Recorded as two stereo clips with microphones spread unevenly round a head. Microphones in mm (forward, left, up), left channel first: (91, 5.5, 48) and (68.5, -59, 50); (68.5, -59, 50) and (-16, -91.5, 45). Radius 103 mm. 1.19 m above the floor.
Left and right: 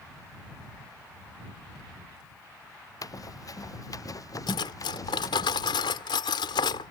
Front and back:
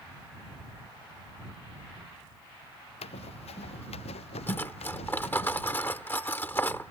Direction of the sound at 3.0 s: 40° left.